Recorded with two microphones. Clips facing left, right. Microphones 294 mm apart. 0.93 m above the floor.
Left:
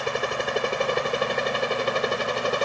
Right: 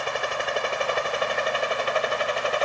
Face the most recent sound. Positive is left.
turn(degrees=50)  # may be behind; listen again after turning